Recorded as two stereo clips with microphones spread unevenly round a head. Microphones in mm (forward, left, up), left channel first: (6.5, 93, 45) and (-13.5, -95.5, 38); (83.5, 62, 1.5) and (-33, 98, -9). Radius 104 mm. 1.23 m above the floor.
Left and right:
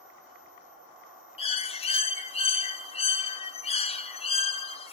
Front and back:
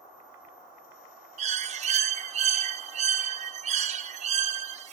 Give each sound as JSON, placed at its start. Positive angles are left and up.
{"t": 1.4, "sound": "a bird", "azimuth_deg": 145, "distance_m": 1.0}